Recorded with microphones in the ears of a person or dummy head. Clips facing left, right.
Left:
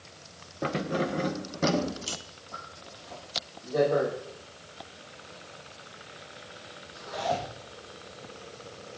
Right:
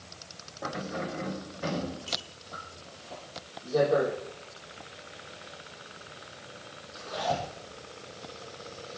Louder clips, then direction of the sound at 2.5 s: Even; 30° right (ahead or behind).